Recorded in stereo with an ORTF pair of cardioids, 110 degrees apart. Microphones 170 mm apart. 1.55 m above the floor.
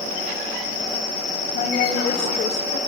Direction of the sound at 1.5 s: 55° left.